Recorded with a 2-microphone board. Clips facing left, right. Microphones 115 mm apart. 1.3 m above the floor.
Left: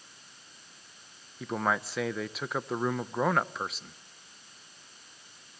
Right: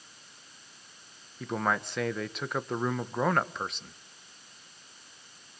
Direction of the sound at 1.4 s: 5° left (ahead or behind).